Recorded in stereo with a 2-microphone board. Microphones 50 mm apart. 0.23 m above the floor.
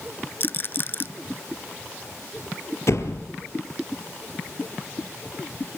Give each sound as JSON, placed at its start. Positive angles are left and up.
{"t": 0.4, "sound": "a rattle", "side_deg": 40, "distance_m": 0.5}
{"t": 2.9, "sound": "a door slam", "side_deg": 60, "distance_m": 3.0}